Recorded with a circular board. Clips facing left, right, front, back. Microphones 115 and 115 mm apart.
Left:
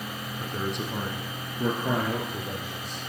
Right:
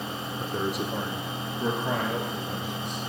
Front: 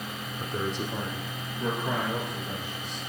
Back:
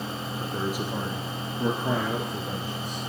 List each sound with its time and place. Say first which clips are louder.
0.4 s a man speaking: right 2 dB, back 1 dB; 75° right, 1.3 m; by 3.1 s 135° left, 3.5 m